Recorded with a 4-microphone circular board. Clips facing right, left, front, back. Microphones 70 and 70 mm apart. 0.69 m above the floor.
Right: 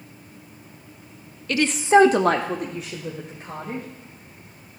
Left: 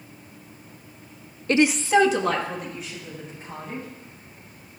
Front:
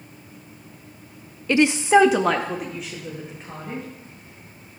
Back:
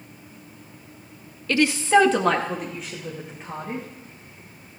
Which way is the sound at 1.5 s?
65° left.